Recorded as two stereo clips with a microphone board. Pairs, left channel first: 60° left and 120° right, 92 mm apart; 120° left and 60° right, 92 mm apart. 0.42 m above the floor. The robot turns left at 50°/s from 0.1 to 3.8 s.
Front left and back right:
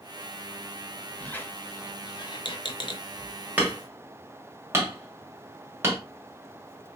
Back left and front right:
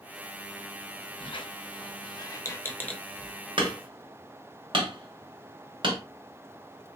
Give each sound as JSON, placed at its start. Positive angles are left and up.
{"t": 1.2, "sound": "a squeak", "azimuth_deg": 135, "distance_m": 0.6}
{"t": 3.6, "sound": "hammering", "azimuth_deg": -50, "distance_m": 1.4}